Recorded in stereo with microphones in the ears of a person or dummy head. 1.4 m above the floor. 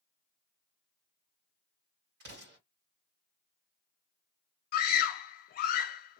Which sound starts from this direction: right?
An explosion, at 2.2 s.